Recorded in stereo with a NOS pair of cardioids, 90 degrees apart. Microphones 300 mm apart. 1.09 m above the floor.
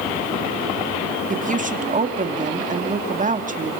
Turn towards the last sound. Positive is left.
turn(degrees=-25)